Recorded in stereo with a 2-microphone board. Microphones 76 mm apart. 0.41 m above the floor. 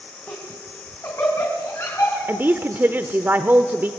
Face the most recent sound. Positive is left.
turn(degrees=-25)  # may be behind; listen again after turning